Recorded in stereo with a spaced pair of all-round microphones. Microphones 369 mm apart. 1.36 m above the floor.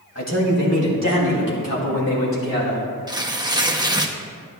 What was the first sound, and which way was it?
A man speaking, 40° left (ahead or behind).